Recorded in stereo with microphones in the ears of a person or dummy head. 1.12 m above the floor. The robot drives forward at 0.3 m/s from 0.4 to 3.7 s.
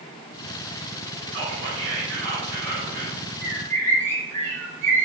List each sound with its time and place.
1.3 s whispering: 65° right (ahead or behind), 1.2 m; by 3.2 s 45° right (ahead or behind), 1.5 m
3.4 s a bird: 10° left (ahead or behind), 1.2 m